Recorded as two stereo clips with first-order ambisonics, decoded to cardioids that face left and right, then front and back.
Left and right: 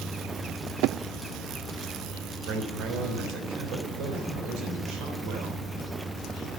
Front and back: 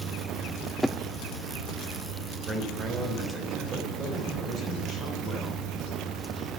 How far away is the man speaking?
About 3.5 m.